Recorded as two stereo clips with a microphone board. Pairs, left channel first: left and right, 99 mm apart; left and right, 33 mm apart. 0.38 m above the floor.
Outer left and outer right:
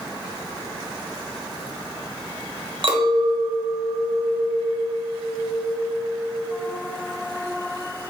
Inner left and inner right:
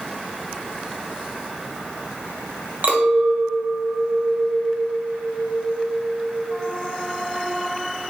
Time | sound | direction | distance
2.8 | a clink | 55° right (ahead or behind) | 1.1 m